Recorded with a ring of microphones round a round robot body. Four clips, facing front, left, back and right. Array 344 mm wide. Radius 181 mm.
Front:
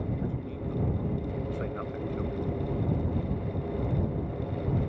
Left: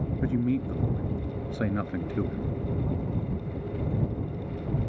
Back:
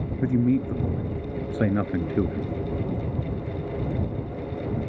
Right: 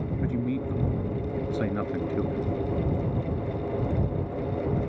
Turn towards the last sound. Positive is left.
turn(degrees=175)